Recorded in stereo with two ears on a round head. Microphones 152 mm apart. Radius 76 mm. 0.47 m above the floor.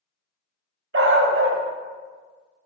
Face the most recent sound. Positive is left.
turn(degrees=-75)  # may be behind; listen again after turning